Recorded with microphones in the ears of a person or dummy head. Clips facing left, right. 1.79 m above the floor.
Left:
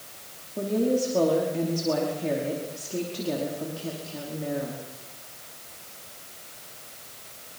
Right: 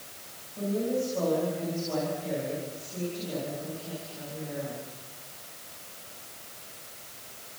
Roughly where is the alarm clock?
I don't hear an alarm clock.